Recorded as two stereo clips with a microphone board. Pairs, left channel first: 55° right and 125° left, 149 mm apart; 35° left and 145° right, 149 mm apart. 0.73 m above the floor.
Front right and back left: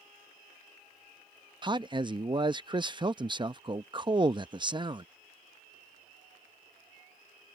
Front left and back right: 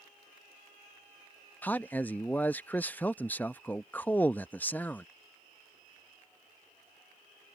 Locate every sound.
1.6 s a man speaking: 105° left